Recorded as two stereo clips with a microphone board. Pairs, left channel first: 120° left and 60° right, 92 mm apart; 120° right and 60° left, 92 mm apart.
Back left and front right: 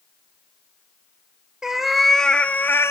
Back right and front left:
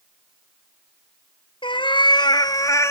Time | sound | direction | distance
1.6 | a cat meowing | 145° right | 1.1 m